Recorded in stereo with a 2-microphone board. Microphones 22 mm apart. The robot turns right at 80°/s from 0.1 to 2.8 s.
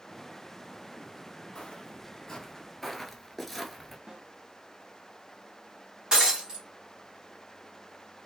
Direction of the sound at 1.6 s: 45° left (ahead or behind).